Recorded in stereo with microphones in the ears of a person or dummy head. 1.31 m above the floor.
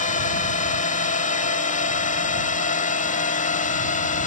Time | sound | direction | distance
0.0 | a drone | 45° left (ahead or behind) | ?